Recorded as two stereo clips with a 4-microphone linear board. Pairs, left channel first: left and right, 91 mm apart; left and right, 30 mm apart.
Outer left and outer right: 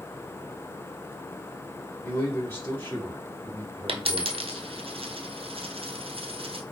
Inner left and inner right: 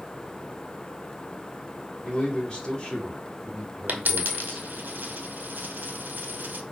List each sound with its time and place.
2.0 s a man speaking: 25° left (ahead or behind), 1.7 m; by 4.7 s 15° left (ahead or behind), 2.5 m
3.9 s a dropped coin: 75° right (ahead or behind), 0.9 m